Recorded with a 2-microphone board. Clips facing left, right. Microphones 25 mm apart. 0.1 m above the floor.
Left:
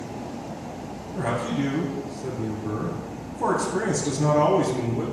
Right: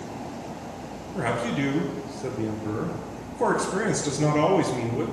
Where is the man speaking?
45° right (ahead or behind), 1.5 m.